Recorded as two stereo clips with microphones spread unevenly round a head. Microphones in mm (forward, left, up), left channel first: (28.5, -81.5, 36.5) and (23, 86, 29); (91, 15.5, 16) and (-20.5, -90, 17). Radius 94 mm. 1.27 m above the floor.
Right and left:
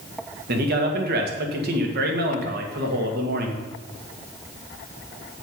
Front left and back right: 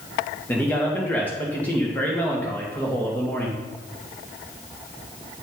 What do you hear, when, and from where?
0.5 s a man speaking: 125° left, 1.9 m